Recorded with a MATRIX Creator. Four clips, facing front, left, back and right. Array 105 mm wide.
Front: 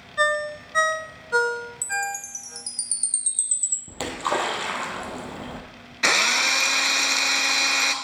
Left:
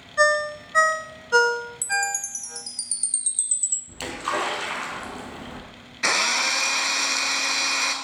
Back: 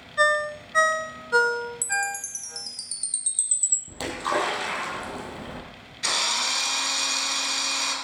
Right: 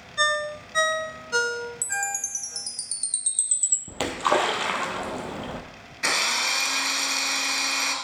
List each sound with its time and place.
0.2 s a ringtone: 95° left, 0.6 m
1.8 s a chime: 110° right, 0.6 m
3.9 s a splash: 75° right, 1.6 m
6.0 s a drill: 15° left, 1.0 m